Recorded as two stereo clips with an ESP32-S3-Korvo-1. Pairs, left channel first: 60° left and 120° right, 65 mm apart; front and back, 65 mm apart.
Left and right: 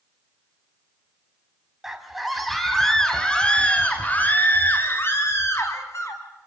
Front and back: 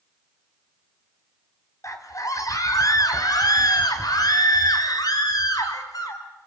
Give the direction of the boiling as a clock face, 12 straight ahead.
I don't hear boiling.